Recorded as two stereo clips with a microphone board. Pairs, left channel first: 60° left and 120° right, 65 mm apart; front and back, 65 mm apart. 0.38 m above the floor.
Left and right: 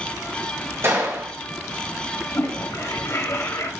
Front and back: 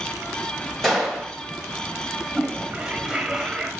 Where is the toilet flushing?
105° left, 0.6 m.